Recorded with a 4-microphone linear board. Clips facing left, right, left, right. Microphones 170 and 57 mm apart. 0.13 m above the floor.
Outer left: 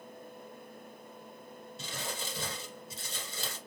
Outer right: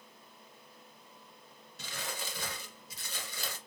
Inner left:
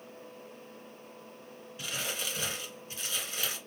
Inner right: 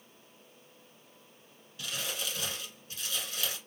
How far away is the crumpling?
About 1.4 m.